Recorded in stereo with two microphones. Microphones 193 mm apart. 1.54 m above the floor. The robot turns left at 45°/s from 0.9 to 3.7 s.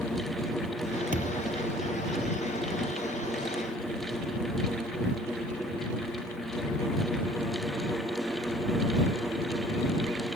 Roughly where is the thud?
Right.